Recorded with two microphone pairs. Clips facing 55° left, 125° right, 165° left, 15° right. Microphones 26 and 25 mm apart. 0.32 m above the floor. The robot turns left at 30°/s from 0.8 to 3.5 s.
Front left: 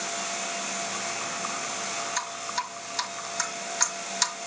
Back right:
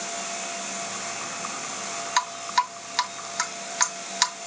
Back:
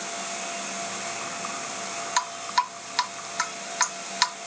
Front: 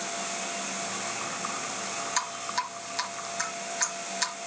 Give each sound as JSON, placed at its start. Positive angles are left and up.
{"t": 2.2, "sound": "dripping", "azimuth_deg": -130, "distance_m": 1.8}